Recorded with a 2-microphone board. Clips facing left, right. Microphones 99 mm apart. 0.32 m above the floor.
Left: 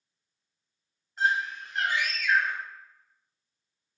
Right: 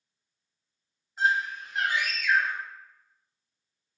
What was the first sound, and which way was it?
A scream, 5° right (ahead or behind).